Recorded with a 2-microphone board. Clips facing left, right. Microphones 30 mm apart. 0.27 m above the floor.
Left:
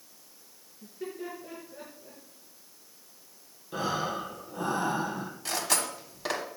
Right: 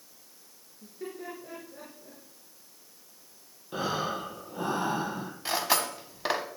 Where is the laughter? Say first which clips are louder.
Left 1 dB; 5° left (ahead or behind), 4 m; by 2.2 s 10° right (ahead or behind), 4 m.